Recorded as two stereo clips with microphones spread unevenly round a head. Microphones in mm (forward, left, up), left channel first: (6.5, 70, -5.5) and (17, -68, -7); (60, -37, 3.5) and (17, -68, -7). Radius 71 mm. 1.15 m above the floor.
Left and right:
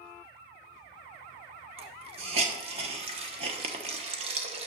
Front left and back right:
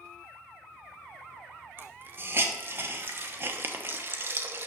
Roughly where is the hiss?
Behind right.